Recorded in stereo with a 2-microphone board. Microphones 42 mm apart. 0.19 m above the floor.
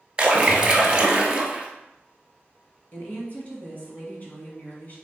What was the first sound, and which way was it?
A splash, 20° right (ahead or behind).